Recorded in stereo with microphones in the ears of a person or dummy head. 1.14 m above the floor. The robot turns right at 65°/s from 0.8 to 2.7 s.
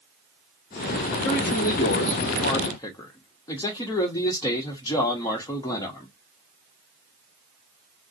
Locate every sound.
1.2 s a man speaking: 60° left, 0.6 m; by 6.1 s 155° left, 0.6 m